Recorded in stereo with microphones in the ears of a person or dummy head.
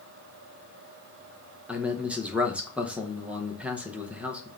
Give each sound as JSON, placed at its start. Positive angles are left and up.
{"t": 1.7, "sound": "a man speaking", "side_deg": 0, "distance_m": 0.8}